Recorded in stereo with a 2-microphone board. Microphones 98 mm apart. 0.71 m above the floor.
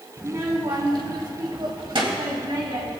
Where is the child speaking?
25° right (ahead or behind), 1.1 m; by 2.9 s 65° right (ahead or behind), 3.5 m.